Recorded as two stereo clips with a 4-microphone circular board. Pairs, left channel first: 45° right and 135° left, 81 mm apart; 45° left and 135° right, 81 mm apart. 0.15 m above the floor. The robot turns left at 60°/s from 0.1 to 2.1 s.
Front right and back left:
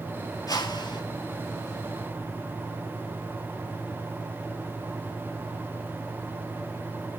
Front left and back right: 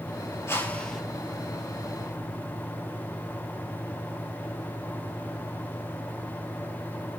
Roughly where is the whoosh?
Ahead.